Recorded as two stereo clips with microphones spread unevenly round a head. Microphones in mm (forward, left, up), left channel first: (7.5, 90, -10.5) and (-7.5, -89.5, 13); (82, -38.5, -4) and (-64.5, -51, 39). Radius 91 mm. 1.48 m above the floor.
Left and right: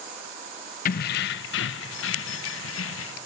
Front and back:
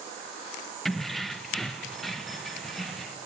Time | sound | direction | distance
0.8 | keys jangling | 110° left | 0.5 m